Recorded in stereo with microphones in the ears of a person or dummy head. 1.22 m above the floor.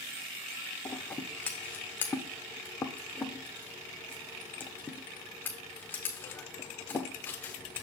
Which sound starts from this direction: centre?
Scissors, at 0.8 s.